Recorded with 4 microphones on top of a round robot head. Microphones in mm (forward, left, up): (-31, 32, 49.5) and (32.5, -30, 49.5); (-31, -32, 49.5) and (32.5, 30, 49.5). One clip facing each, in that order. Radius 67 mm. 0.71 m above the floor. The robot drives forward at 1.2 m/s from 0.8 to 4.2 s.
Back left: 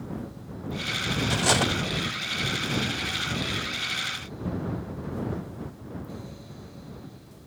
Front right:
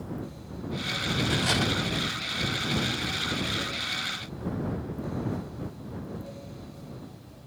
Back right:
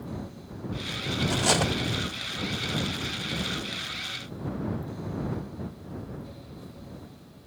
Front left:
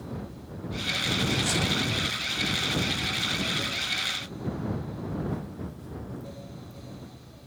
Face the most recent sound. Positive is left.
turn(degrees=180)